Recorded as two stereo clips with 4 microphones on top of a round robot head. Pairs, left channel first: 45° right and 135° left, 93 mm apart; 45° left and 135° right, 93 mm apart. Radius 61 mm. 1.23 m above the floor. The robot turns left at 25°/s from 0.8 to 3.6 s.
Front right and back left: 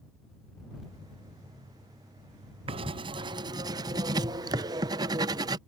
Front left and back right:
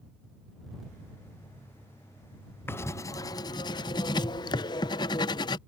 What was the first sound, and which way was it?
Writing, 110° left.